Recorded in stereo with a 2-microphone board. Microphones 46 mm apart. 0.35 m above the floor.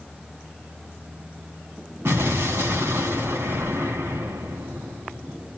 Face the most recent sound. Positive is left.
turn(degrees=-70)  # may be behind; listen again after turning